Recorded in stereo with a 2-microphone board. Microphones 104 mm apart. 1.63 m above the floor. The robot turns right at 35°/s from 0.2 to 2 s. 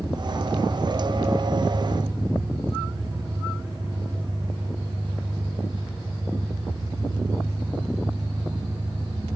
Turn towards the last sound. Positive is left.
turn(degrees=-60)